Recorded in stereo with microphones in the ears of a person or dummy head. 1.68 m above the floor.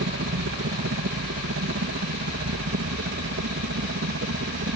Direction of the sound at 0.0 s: 60° right (ahead or behind).